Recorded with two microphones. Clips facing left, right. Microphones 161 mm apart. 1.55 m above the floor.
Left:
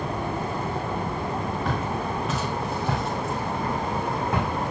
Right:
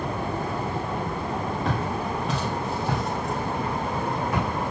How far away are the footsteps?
About 2.5 m.